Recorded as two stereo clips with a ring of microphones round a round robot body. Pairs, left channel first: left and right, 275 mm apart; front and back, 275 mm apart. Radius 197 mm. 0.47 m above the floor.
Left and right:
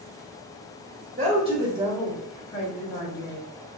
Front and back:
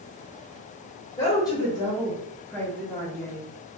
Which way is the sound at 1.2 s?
65° right.